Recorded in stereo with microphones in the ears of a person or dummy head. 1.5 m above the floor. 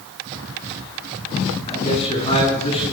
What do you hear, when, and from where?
1.7 s a man speaking: 35° left (ahead or behind), 9.5 m